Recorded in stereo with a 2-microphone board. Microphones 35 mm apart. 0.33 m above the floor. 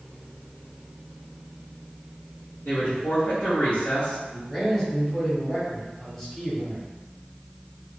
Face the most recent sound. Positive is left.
turn(degrees=5)  # may be behind; listen again after turning